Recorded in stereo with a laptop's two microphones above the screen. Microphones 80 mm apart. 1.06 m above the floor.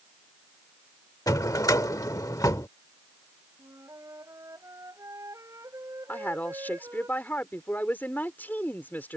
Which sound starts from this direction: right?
A flute, at 3.6 s.